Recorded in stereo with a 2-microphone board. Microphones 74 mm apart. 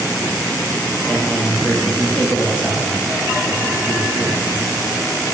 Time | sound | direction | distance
1.0 | a man speaking | 20° left (ahead or behind) | 3.5 m